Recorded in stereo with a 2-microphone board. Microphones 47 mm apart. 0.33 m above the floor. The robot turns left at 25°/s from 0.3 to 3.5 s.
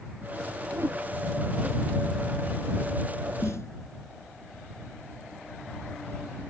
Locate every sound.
0.7 s a whoosh: 70° right (ahead or behind); by 1.0 s 60° right (ahead or behind)
3.4 s a snare drum: 75° left (ahead or behind)